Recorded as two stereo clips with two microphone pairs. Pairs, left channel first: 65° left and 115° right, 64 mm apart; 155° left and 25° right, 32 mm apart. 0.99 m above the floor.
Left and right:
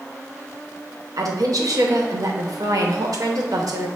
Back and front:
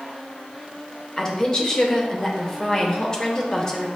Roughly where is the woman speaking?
Behind right.